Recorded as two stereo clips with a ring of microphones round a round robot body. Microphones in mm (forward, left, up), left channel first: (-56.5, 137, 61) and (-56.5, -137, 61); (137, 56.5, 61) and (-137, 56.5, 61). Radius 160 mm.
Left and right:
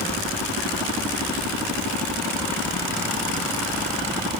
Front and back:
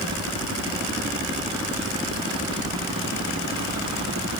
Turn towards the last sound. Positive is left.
No sound to turn to.